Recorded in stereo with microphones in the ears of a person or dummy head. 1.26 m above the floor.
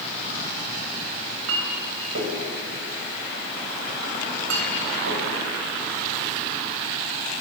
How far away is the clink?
About 5 m.